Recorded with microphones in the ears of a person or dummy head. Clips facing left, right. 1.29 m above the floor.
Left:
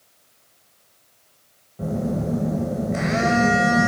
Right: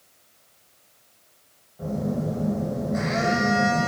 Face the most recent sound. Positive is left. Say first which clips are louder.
# left 2 dB
turn(degrees=40)  # may be behind; listen again after turning